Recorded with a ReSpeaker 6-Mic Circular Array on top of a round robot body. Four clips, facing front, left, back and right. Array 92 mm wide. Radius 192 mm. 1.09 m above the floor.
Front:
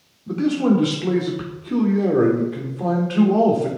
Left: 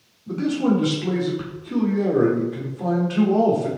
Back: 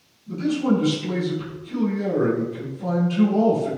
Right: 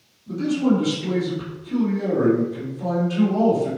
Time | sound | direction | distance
0.3 | a man speaking | 20° left | 3 m